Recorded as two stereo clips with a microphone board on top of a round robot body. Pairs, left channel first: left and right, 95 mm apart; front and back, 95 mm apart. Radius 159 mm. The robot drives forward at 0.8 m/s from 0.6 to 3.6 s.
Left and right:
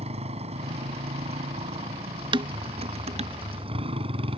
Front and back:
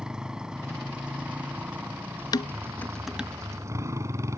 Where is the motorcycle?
95° right; by 4.4 s 120° right.